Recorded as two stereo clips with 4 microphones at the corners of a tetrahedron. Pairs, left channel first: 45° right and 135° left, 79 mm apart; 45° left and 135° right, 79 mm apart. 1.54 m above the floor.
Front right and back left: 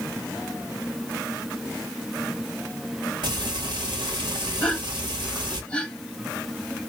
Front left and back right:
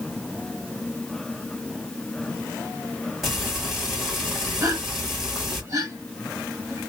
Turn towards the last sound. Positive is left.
turn(degrees=-115)